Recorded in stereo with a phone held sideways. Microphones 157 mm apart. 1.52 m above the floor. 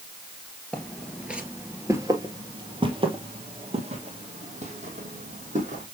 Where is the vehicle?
No vehicle in this recording.